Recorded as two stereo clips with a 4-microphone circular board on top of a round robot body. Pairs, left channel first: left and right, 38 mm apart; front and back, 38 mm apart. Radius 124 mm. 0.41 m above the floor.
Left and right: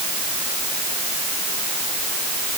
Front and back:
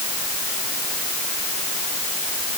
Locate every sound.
Only background noise.